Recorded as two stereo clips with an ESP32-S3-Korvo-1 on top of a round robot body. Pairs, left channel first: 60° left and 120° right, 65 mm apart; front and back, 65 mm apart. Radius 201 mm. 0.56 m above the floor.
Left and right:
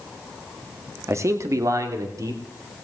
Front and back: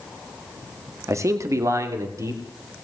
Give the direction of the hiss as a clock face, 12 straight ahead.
I don't hear a hiss.